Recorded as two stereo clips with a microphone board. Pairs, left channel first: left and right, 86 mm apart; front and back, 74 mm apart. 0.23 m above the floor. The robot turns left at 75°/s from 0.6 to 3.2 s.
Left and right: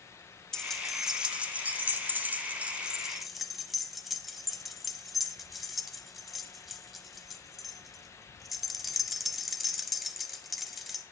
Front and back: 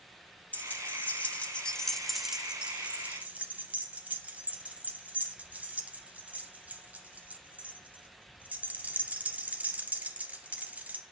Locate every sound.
0.5 s keys jangling: 20° left, 0.8 m; by 11.0 s 175° right, 0.8 m